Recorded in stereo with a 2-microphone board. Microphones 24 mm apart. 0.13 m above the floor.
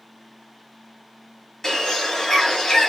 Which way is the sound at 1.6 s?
10° left (ahead or behind).